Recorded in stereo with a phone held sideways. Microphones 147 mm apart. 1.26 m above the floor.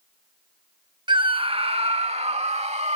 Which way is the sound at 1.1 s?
30° right (ahead or behind).